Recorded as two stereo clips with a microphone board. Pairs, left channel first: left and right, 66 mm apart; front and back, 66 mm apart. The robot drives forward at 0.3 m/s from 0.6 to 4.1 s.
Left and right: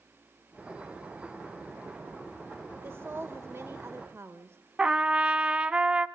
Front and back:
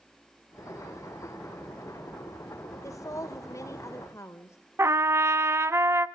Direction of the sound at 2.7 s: 35° right.